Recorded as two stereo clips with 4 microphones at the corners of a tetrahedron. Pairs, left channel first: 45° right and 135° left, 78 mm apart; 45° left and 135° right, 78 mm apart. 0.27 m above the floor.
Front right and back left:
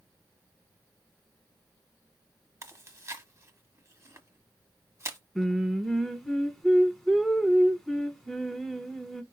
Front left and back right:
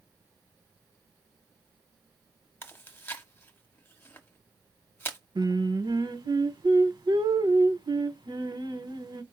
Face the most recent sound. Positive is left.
turn(degrees=-130)